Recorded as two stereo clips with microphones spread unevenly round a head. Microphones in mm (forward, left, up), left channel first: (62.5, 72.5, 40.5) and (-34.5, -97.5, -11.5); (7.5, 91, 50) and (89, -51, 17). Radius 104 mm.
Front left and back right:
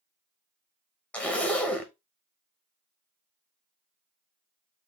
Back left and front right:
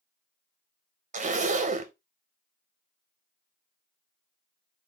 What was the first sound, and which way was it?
A zipper, 30° right.